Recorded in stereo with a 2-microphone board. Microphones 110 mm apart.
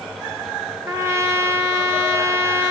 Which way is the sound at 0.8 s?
25° right (ahead or behind).